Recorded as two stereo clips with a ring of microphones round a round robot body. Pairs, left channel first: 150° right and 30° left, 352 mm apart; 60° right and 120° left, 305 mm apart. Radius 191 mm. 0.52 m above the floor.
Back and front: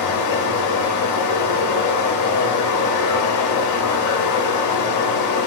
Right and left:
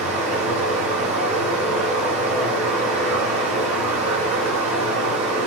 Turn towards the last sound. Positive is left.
turn(degrees=-175)